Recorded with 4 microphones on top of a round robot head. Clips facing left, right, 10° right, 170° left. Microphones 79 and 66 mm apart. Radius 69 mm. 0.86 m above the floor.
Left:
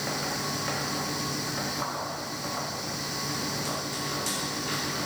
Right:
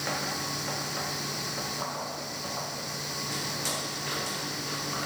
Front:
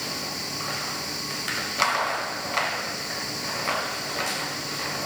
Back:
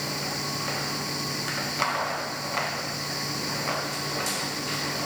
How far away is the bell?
No bell in this recording.